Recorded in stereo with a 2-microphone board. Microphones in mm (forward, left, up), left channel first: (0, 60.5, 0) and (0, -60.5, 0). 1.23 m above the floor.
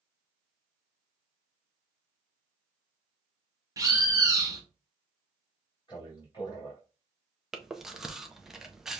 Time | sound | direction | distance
3.8 | a bird | 25° right (ahead or behind) | 0.9 m
5.9 | a man speaking | 40° left (ahead or behind) | 2.5 m
7.5 | chewing | 5° right (ahead or behind) | 0.5 m